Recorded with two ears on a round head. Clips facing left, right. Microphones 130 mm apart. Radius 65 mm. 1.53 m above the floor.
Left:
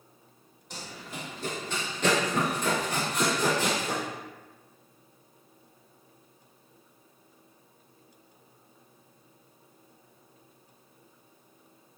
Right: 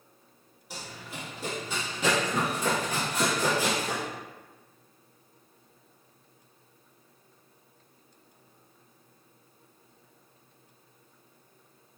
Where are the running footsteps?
5° right (ahead or behind), 1.9 m.